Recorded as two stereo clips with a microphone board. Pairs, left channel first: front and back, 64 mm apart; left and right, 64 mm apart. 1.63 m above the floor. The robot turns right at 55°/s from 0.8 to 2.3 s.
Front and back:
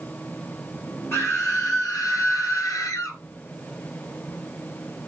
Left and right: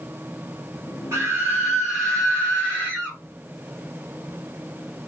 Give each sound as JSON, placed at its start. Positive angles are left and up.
{"t": 1.1, "sound": "a scream", "azimuth_deg": -50, "distance_m": 6.0}